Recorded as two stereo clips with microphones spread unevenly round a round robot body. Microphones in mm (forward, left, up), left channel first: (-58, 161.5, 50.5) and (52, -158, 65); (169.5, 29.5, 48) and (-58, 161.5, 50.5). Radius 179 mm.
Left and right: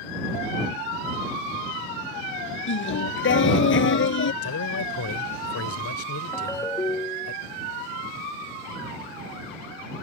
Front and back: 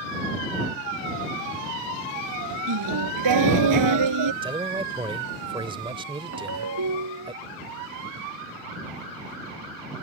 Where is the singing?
165° left.